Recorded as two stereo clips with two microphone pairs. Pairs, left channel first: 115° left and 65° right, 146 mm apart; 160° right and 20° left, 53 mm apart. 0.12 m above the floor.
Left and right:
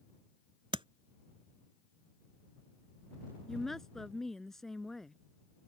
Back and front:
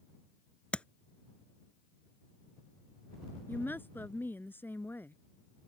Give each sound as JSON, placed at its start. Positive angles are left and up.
{"t": 0.7, "sound": "tapping", "azimuth_deg": -105}
{"t": 3.5, "sound": "a woman speaking", "azimuth_deg": -160}